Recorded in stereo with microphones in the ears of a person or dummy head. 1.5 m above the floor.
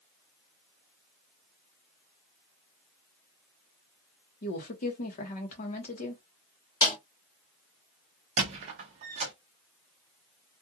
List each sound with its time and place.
4.4 s a woman speaking: 40° left (ahead or behind), 0.9 m
6.8 s a snare drum: 15° left (ahead or behind), 1.1 m
8.4 s a squeak: 30° right (ahead or behind), 0.6 m